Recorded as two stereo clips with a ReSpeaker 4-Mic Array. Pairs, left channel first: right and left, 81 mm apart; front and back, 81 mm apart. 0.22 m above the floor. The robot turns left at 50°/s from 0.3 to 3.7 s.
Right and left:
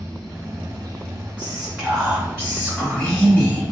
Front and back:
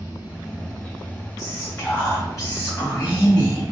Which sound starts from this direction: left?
Running water, at 0.0 s.